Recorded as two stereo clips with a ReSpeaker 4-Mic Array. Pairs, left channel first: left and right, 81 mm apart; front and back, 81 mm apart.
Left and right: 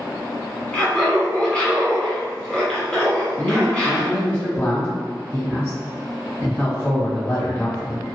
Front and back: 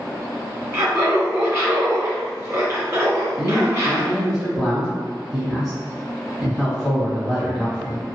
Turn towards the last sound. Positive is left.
turn(degrees=95)